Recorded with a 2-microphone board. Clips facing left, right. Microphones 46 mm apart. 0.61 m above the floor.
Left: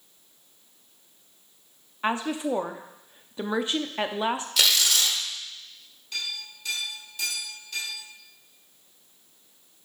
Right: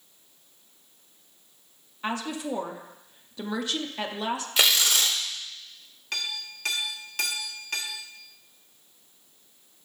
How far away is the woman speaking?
About 0.6 m.